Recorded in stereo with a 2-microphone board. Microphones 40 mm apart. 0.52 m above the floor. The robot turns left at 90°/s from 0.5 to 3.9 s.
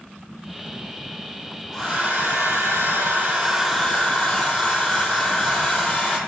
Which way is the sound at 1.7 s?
Straight ahead.